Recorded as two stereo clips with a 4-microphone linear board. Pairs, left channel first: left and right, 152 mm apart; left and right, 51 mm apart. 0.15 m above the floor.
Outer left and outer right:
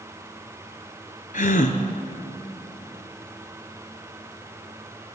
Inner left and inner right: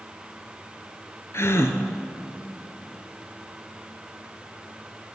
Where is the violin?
I don't hear a violin.